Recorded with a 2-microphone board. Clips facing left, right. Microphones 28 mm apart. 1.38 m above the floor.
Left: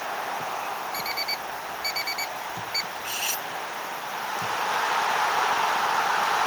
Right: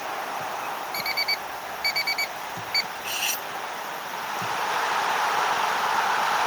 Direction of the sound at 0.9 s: 25° right (ahead or behind).